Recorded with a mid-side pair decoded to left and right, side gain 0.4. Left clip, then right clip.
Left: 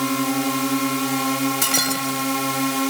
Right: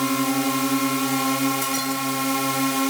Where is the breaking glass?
65° left.